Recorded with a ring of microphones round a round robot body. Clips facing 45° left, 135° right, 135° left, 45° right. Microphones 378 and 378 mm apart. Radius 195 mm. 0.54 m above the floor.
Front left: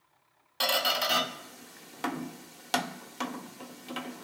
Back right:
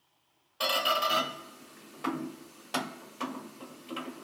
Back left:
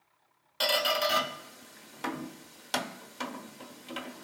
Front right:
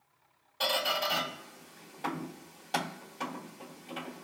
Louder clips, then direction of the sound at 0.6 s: Even, back left 3 dB; 80° left.